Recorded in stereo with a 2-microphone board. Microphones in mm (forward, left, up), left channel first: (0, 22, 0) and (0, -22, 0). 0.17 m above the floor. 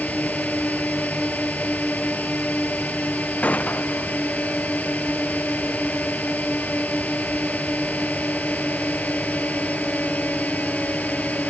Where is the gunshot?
35° left (ahead or behind).